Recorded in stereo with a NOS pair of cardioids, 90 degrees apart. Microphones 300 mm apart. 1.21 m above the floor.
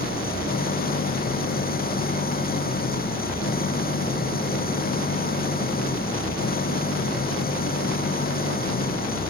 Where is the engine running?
30° left.